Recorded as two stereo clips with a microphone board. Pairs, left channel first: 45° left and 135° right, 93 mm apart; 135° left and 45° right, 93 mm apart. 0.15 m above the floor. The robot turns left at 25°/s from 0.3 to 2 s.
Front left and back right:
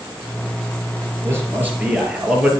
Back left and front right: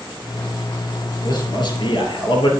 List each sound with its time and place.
1.2 s a man speaking: 165° left, 2.5 m; by 2.5 s 150° left, 2.5 m